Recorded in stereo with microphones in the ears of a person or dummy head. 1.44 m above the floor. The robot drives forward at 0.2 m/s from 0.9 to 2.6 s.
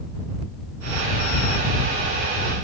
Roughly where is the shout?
No shout in this recording.